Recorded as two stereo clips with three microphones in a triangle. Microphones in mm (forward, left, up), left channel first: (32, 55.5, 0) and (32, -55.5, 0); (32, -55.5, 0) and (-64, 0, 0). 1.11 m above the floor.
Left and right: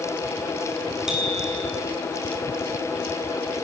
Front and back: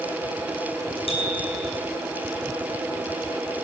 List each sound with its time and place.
1.1 s a bicycle bell: 5° right, 8 m